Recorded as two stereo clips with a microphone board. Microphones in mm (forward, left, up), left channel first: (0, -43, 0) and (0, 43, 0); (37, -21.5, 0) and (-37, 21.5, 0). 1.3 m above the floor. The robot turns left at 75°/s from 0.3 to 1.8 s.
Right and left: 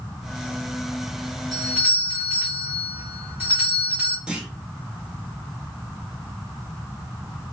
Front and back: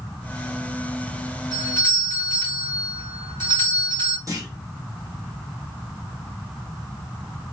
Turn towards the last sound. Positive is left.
turn(degrees=165)